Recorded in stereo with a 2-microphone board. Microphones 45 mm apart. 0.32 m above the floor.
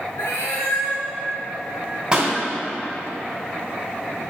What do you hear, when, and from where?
0.2 s a cat meowing: 65° left (ahead or behind), 2.5 m
2.1 s a pop: 25° right (ahead or behind), 2 m